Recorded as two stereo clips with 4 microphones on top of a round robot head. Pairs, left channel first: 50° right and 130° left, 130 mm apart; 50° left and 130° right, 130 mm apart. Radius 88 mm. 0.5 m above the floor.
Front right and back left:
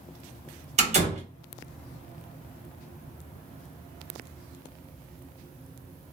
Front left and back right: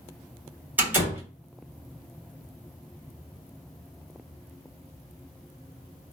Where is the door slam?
155° left, 1.5 m.